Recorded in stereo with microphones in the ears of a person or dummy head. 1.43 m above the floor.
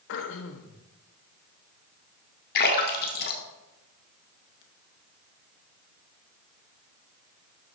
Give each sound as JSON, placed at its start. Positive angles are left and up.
{"t": 0.1, "sound": "throat clearing", "side_deg": 60, "distance_m": 1.1}
{"t": 2.5, "sound": "a splash", "side_deg": 55, "distance_m": 1.7}